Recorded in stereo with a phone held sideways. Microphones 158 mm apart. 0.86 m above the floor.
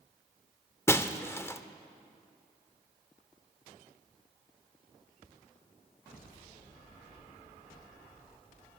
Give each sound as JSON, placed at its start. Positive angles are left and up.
{"t": 0.9, "sound": "breaking glass", "side_deg": 15, "distance_m": 0.5}